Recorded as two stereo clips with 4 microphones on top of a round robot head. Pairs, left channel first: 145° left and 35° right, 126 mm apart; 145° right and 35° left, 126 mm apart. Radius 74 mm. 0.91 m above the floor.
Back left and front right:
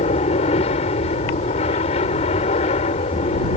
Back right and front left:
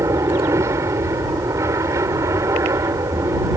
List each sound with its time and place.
0.0 s an aircraft: 105° left